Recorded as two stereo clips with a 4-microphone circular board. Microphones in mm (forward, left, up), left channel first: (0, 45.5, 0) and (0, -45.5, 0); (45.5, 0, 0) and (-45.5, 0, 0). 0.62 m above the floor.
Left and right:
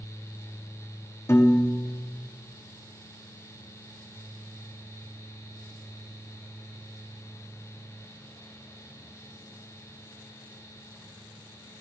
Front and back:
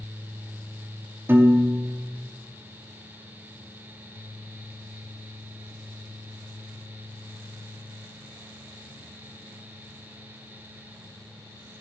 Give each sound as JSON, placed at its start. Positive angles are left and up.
{"t": 1.3, "sound": "a piano", "azimuth_deg": 130, "distance_m": 0.7}